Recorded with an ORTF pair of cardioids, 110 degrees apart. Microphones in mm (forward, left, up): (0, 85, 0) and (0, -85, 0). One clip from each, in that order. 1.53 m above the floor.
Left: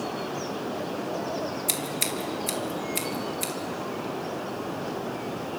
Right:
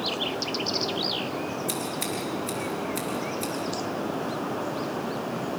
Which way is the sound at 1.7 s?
45° left.